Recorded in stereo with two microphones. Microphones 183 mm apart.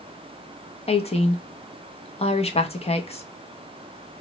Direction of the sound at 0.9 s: 35° left (ahead or behind).